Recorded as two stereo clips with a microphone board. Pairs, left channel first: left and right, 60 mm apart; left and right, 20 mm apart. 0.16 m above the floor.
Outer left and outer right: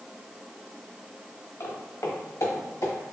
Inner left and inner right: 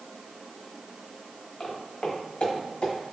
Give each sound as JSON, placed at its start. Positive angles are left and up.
{"t": 1.6, "sound": "footsteps", "side_deg": 60, "distance_m": 1.6}